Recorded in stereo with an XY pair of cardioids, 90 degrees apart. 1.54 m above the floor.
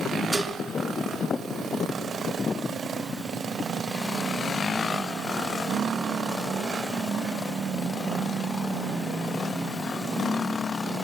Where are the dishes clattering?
10° right, 2.5 m.